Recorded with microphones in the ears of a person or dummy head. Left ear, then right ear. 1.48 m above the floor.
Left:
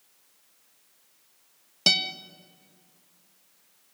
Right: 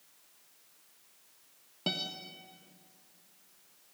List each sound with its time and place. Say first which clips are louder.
1.9 s a guitar: left 12 dB; 75° left (ahead or behind), 1.4 m